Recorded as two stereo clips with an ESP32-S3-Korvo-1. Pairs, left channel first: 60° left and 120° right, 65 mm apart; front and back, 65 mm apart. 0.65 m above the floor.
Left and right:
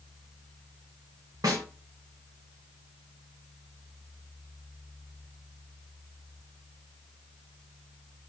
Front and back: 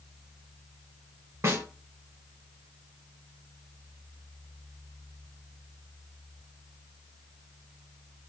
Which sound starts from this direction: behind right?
A snare drum, at 1.4 s.